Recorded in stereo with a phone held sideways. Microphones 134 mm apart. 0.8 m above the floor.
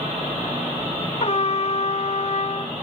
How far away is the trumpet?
About 0.5 m.